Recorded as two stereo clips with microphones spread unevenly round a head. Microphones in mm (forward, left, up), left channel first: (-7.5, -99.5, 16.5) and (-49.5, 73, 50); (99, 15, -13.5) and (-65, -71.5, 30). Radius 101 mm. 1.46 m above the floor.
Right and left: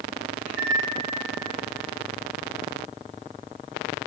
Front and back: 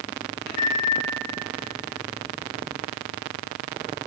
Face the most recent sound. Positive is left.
turn(degrees=20)